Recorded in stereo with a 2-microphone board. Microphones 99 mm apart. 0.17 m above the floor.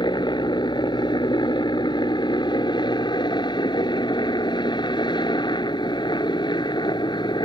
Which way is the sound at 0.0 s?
50° left (ahead or behind).